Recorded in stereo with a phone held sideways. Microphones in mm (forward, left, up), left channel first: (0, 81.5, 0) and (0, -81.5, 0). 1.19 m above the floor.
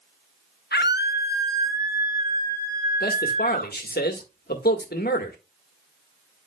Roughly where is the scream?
Left.